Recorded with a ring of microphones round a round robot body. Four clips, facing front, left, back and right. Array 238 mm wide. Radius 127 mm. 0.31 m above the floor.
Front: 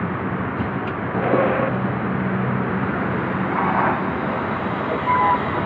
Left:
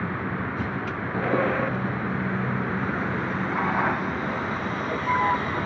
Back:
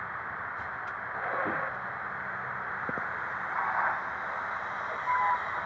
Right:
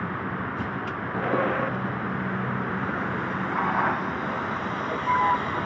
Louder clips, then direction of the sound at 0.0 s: Left 1 dB, front 13 dB; 10° left.